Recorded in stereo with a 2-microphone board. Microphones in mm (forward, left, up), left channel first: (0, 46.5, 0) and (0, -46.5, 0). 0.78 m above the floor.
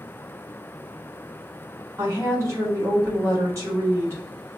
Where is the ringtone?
I don't hear a ringtone.